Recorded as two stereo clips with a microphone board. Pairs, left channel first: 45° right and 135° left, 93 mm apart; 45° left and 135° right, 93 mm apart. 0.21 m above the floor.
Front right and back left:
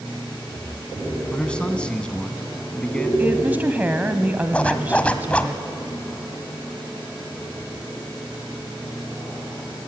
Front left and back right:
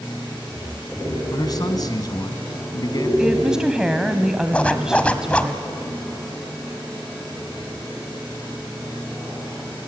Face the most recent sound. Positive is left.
turn(degrees=0)